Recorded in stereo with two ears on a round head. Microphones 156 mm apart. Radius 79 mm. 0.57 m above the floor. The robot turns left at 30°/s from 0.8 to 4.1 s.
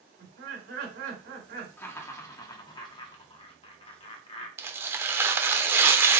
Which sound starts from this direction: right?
Laughter, at 0.2 s.